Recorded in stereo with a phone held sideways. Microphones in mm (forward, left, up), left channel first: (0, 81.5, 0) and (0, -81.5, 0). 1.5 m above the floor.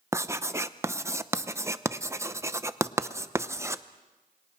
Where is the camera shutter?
I don't hear a camera shutter.